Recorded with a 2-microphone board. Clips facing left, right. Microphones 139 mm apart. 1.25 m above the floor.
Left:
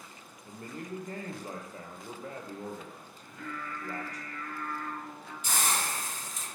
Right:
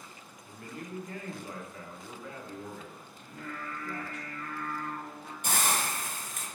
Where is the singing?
60° right (ahead or behind), 0.7 m.